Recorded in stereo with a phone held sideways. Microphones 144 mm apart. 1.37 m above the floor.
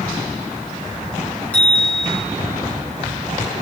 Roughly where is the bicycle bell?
Centre.